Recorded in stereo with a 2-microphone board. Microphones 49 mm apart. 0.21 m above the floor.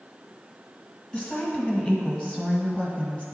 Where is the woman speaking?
25° left (ahead or behind), 1.5 m.